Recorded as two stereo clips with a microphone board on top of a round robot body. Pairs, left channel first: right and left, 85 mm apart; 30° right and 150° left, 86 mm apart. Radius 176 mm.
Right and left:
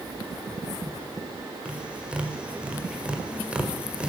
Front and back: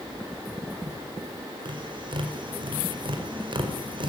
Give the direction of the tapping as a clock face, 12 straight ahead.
6 o'clock.